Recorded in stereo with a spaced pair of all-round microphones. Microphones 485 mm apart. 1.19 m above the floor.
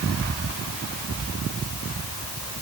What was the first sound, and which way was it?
Only background noise.